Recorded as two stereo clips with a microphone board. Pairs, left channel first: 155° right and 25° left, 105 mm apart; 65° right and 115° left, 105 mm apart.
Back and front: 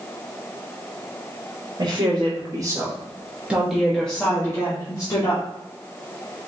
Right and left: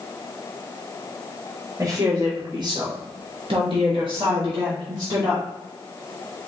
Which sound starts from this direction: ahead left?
A woman speaking, at 1.8 s.